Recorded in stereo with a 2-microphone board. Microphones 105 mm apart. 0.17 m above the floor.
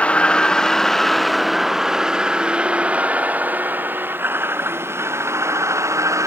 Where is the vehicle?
10° left (ahead or behind); by 6.3 s 30° right (ahead or behind).